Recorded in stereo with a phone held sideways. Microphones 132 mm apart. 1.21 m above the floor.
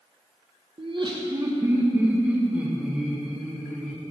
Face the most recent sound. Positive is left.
turn(degrees=0)  # may be behind; listen again after turning